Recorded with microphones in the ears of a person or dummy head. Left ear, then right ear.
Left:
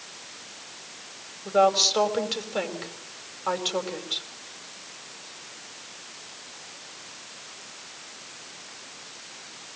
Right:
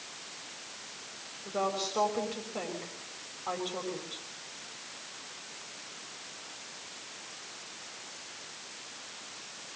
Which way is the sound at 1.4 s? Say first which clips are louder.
Left 13 dB; 50° left (ahead or behind).